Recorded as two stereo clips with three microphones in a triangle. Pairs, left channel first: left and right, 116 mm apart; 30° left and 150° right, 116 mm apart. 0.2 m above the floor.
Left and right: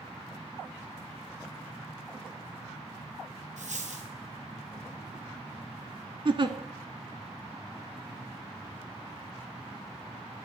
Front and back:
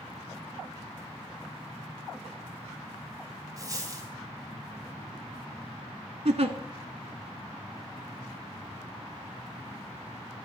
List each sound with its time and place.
3.6 s a dropped coin: 90° right, 1.9 m
6.2 s a giggle: 130° right, 0.7 m